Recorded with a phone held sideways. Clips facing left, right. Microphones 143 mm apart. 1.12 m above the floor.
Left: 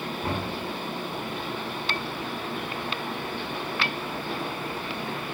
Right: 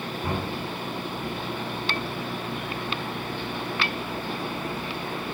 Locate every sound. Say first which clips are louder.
0.2 s knocking: right 1 dB; 35° left (ahead or behind), 8.5 m